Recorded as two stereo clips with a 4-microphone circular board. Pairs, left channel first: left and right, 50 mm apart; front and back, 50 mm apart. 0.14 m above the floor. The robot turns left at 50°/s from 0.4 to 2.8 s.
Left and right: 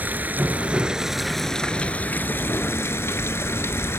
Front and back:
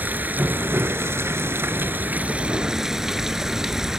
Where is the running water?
135° right, 0.8 m; by 4.0 s 105° left, 0.8 m.